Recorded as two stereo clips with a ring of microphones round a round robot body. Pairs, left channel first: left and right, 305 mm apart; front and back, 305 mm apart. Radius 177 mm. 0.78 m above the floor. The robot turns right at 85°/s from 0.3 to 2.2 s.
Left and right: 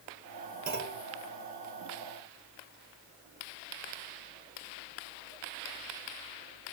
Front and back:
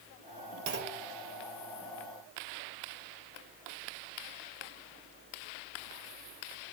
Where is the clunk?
145° right, 1.0 m; by 1.1 s 110° right, 1.0 m.